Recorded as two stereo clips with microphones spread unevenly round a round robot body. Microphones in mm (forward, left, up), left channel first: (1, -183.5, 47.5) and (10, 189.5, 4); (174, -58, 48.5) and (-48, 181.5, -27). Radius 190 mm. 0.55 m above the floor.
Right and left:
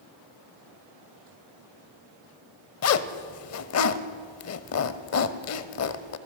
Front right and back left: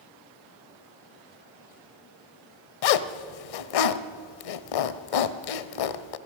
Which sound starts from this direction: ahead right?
A zipper, at 2.8 s.